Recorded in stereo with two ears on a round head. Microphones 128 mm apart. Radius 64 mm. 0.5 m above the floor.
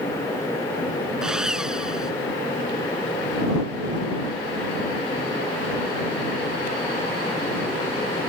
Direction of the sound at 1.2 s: 5° right (ahead or behind).